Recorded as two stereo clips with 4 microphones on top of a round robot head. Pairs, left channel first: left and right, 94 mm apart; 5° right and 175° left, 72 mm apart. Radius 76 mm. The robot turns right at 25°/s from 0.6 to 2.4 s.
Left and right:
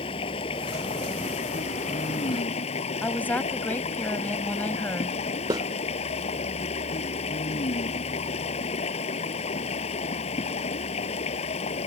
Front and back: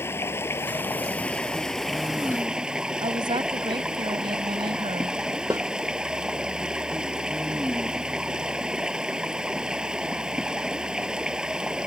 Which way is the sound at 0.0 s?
50° left.